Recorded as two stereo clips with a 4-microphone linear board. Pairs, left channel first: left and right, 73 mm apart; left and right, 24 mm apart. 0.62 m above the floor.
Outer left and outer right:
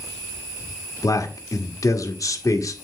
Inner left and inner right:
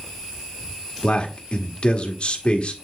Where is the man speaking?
50° left (ahead or behind), 1.5 m.